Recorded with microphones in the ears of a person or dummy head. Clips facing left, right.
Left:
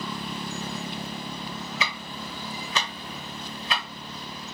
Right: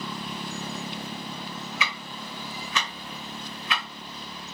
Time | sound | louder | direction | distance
1.8 | ticking | left 1 dB | 35° left (ahead or behind) | 0.5 m